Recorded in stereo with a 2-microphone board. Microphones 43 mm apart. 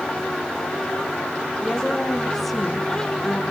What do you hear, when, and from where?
1.6 s a woman speaking: centre (ahead or behind), 5 m